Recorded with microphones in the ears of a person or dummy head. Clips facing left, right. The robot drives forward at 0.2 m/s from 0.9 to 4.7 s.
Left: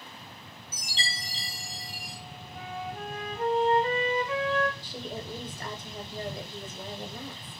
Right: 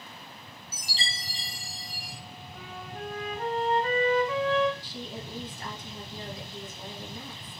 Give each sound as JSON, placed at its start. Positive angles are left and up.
{"t": 0.7, "sound": "a chime", "side_deg": 15, "distance_m": 1.1}
{"t": 2.5, "sound": "a flute", "side_deg": 15, "distance_m": 1.5}
{"t": 4.8, "sound": "a woman speaking", "side_deg": 45, "distance_m": 0.6}